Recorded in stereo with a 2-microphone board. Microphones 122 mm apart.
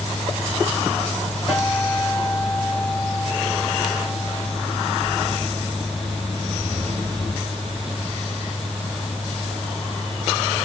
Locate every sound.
1.5 s a guitar: centre (ahead or behind), 2.0 m